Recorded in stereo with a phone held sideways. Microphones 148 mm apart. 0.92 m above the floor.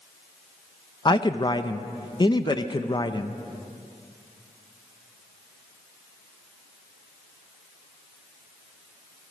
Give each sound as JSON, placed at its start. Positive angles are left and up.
{"t": 1.1, "sound": "a man speaking", "side_deg": 30, "distance_m": 0.7}